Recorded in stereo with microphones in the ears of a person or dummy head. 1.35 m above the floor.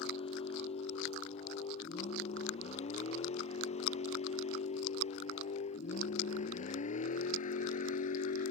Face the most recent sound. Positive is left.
turn(degrees=45)  # may be behind; listen again after turning